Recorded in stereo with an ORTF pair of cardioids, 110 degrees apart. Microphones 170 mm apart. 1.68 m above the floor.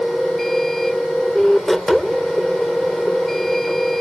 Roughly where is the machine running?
Ahead.